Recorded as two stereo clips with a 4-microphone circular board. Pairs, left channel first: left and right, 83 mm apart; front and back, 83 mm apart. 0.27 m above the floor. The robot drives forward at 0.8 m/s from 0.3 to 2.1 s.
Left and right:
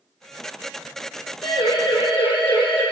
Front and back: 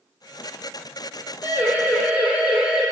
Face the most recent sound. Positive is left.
turn(degrees=95)